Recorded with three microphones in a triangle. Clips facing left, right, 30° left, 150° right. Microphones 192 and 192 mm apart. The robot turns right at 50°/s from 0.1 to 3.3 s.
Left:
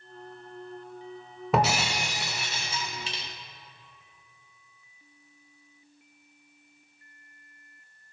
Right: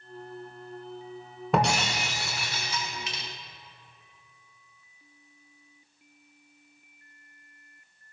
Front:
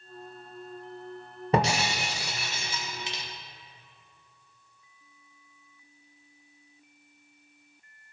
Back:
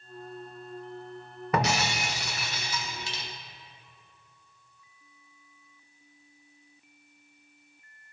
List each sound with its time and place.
1.5 s breaking glass: 5° left, 1.0 m; by 3.2 s 90° left, 1.0 m